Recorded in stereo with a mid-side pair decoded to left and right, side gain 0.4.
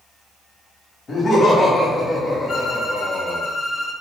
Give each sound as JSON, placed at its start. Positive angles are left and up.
{"t": 1.1, "sound": "laughter", "azimuth_deg": 50, "distance_m": 1.7}
{"t": 2.5, "sound": "a violin", "azimuth_deg": 60, "distance_m": 1.6}